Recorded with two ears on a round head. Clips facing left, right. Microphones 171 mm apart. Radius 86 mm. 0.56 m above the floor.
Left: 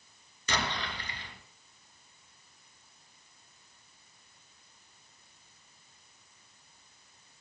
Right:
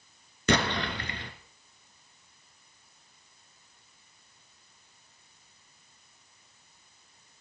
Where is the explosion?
50° right (ahead or behind), 1.5 m.